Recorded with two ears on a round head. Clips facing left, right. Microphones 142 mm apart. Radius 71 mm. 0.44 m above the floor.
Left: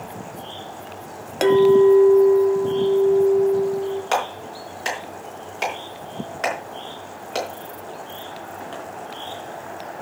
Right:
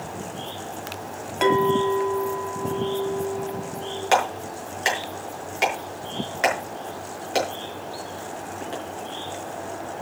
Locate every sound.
1.4 s a clink: 45° left (ahead or behind), 1.6 m
4.1 s a clap: 10° right (ahead or behind), 5 m